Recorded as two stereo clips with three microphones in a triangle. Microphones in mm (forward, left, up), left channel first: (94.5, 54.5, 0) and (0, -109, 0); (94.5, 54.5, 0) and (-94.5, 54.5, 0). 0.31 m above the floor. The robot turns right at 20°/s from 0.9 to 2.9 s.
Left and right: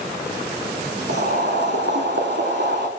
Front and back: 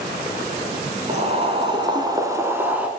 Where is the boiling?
135° right, 0.8 m; by 2.9 s 100° right, 0.8 m.